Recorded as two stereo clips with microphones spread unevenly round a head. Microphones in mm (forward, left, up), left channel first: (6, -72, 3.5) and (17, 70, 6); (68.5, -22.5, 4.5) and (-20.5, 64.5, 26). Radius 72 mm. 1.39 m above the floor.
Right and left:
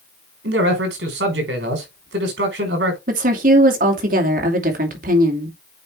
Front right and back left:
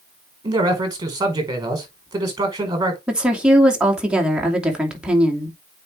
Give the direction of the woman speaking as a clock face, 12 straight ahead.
10 o'clock.